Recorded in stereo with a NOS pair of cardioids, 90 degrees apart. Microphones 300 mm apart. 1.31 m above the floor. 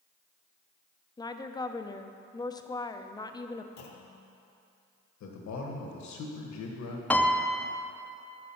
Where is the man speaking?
65° left, 1.5 m.